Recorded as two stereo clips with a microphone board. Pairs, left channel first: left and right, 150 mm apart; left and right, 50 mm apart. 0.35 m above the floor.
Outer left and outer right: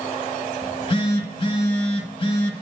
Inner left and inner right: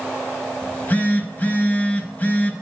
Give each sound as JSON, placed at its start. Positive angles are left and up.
{"t": 0.6, "sound": "a phone buzzing", "side_deg": 40, "distance_m": 0.8}